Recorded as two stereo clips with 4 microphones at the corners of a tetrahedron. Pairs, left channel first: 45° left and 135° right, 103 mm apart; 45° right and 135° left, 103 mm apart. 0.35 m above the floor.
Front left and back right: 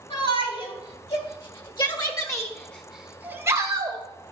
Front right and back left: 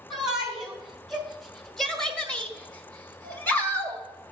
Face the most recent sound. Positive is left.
turn(degrees=-115)